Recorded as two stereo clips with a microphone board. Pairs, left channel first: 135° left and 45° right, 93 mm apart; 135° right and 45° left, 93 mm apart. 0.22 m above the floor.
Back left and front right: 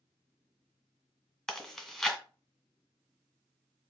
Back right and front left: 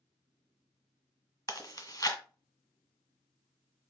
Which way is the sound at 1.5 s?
145° right.